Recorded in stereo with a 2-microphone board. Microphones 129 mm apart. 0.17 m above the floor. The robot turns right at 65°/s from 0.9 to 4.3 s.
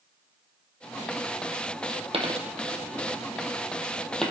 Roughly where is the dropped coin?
Right.